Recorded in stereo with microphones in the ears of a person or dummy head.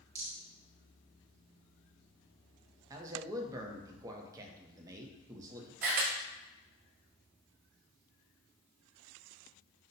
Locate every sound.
0.1 s a rattle: 20° right (ahead or behind), 0.7 m
2.9 s a man speaking: 25° right (ahead or behind), 0.6 m
5.8 s a camera shutter: 45° right (ahead or behind), 0.9 m